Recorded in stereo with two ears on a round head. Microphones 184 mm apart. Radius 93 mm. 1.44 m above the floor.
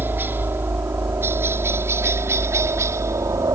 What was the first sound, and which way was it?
A helicopter, 10° right (ahead or behind).